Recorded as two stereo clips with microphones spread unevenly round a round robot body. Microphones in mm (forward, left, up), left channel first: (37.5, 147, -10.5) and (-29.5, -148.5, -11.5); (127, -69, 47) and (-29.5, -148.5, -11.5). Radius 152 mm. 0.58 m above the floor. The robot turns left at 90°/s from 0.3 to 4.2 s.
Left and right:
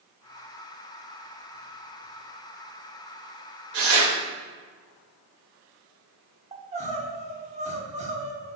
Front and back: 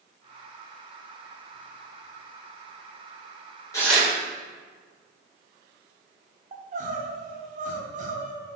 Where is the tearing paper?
50° right, 2 m; by 4.1 s 85° right, 2 m.